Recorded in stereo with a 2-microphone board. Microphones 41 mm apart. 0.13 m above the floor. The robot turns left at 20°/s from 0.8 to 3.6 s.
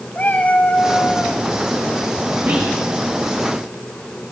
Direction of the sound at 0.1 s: 35° left (ahead or behind).